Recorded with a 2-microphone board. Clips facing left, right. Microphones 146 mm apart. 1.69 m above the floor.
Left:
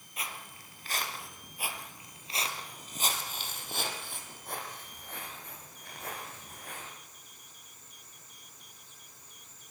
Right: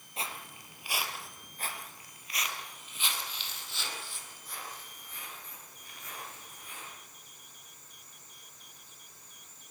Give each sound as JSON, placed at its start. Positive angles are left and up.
{"t": 0.2, "sound": "footsteps", "side_deg": -30, "distance_m": 2.5}